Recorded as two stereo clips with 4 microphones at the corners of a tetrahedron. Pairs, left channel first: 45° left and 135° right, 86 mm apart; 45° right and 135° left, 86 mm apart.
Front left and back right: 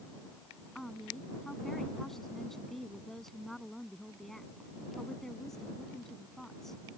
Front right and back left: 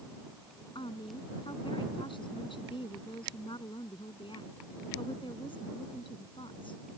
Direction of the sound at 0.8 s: 40° right.